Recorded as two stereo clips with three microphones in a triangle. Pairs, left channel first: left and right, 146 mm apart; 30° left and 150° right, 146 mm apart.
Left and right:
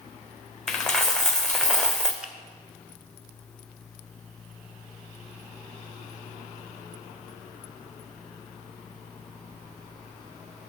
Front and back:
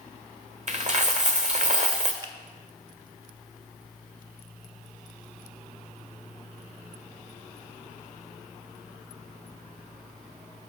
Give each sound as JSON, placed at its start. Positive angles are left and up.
{"t": 0.7, "sound": "a dropped coin", "azimuth_deg": 175, "distance_m": 1.0}
{"t": 2.2, "sound": "a finger snap", "azimuth_deg": -165, "distance_m": 0.9}